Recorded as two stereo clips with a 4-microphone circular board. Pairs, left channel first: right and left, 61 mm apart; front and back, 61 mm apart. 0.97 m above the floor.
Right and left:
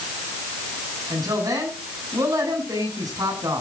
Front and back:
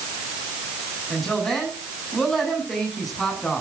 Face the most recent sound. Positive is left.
turn(degrees=85)